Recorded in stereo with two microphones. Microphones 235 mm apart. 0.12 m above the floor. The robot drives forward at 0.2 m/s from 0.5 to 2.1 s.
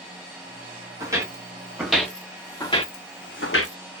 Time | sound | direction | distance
1.0 | footsteps | 15° right (ahead or behind) | 1.1 m